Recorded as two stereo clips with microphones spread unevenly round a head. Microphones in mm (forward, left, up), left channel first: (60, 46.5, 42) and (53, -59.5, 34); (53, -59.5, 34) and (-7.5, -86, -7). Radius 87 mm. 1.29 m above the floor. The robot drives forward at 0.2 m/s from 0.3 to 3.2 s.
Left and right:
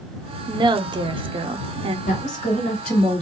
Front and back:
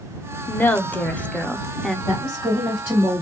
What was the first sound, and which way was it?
A woman speaking, 50° right.